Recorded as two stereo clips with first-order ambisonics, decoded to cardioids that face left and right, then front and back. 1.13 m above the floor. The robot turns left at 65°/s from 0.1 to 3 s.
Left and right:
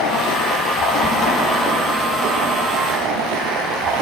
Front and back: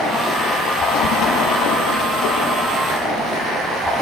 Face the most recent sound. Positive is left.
turn(degrees=-90)